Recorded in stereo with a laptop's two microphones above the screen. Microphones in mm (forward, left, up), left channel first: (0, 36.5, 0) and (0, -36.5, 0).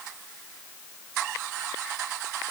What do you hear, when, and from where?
Only background noise.